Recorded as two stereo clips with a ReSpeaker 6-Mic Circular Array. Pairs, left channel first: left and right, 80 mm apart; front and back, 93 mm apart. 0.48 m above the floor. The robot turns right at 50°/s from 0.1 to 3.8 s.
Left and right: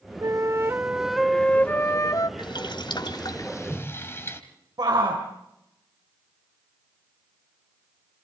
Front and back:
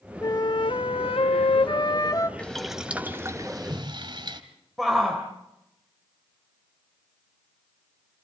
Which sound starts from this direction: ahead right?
A flute, at 0.2 s.